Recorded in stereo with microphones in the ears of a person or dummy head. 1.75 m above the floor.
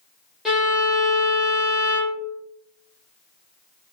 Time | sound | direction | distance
0.5 | a violin | centre (ahead or behind) | 1.4 m